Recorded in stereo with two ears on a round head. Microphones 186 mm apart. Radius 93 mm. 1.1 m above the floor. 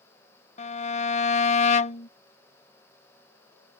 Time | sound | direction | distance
0.6 | a violin | 35° left (ahead or behind) | ?